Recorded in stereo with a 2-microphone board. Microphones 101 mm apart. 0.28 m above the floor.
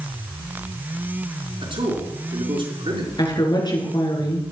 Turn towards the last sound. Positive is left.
turn(degrees=45)  # may be behind; listen again after turning